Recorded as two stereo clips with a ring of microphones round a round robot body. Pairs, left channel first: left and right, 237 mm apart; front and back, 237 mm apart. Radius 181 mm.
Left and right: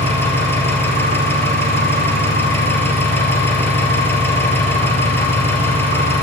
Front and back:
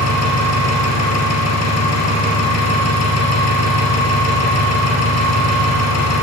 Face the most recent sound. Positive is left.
turn(degrees=10)